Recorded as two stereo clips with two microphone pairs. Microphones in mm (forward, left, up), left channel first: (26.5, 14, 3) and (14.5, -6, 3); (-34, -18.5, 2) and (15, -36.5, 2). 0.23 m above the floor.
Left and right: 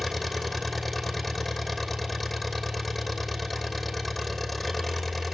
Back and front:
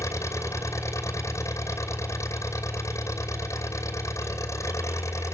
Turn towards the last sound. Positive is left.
turn(degrees=140)